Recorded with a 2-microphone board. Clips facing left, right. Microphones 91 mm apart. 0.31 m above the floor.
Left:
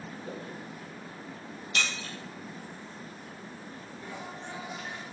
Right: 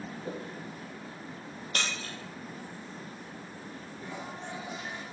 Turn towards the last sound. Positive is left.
turn(degrees=-20)  # may be behind; listen again after turning